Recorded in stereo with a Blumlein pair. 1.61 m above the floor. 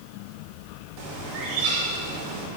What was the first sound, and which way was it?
A bird, 30° right.